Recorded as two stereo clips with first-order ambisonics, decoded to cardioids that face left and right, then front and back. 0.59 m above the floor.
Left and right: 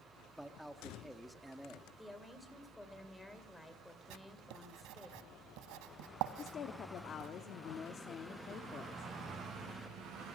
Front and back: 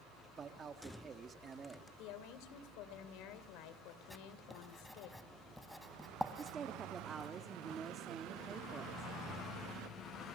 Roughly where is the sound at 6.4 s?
Behind left.